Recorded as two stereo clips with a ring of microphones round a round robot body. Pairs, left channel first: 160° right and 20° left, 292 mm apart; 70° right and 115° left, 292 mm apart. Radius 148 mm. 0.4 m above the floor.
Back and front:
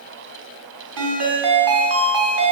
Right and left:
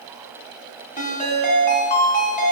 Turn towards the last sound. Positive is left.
turn(degrees=0)